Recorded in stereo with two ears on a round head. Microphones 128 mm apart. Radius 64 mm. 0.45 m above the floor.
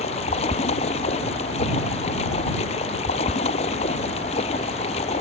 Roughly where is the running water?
Left.